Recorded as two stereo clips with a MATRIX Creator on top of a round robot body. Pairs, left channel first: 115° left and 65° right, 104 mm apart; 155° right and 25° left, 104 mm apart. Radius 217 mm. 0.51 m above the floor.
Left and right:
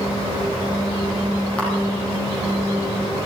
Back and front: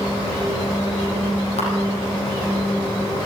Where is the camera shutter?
170° right, 7.5 m.